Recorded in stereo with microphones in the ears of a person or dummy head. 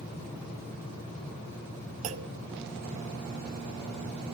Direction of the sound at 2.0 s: 40° right (ahead or behind).